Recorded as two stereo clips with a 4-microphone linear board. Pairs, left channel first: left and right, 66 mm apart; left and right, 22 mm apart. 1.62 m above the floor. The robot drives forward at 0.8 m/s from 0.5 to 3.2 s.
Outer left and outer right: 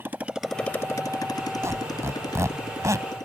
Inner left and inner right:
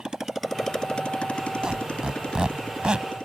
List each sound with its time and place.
0.0 s a motorcycle: 35° right (ahead or behind); by 3.2 s 75° left (ahead or behind)
1.6 s a squeak: 40° right (ahead or behind); by 3.1 s 50° right (ahead or behind)